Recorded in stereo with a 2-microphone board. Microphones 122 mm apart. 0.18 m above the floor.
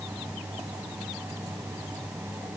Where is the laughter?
No laughter in this recording.